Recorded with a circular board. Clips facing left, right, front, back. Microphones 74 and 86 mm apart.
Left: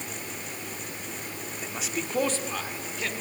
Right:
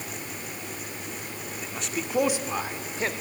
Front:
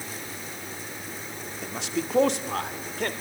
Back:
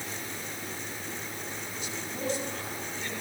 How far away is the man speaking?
About 2 m.